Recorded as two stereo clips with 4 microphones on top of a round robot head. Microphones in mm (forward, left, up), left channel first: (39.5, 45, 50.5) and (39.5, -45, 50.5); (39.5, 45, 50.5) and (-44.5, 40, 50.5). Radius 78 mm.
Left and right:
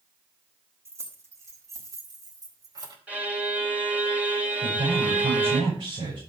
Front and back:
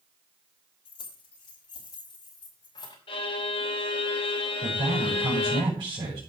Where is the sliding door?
No sliding door in this recording.